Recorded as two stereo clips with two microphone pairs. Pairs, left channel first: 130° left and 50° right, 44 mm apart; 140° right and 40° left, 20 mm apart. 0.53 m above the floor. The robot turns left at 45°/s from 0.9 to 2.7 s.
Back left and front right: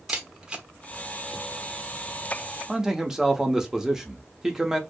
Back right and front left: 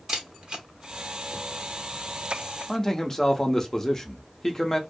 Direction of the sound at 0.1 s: 15° left.